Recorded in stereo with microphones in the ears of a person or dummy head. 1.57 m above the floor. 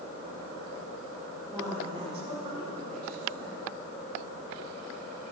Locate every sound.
1.5 s a woman speaking: 15° right (ahead or behind), 4 m; by 3.6 s 60° right (ahead or behind), 4.5 m